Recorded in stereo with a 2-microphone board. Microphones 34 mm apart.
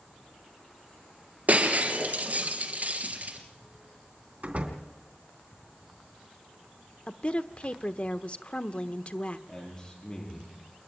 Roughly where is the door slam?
Right.